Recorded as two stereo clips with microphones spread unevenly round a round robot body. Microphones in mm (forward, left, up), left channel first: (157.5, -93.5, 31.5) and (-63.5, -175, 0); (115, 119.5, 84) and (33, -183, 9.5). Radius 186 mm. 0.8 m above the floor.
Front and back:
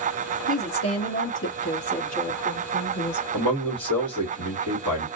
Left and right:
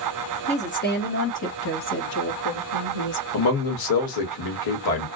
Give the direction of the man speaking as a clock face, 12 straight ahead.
10 o'clock.